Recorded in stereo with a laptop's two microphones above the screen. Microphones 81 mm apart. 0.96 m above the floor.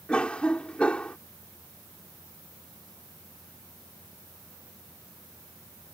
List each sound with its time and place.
0.1 s a cough: 15° left (ahead or behind)